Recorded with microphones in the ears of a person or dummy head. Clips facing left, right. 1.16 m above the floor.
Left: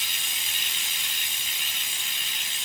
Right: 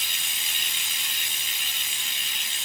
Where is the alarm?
I don't hear an alarm.